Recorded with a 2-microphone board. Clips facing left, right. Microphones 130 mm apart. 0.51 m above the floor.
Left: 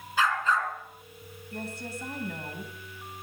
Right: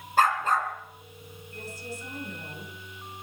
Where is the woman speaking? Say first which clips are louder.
Left 3 dB; 70° left (ahead or behind), 3.5 m.